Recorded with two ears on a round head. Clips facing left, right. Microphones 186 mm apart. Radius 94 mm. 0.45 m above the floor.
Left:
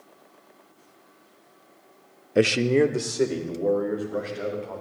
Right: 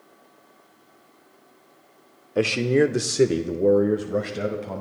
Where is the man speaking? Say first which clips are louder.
Even; 25° left (ahead or behind), 0.8 m; by 4.8 s 55° right (ahead or behind), 2.5 m.